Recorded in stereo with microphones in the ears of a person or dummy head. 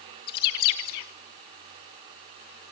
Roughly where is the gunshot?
I don't hear a gunshot.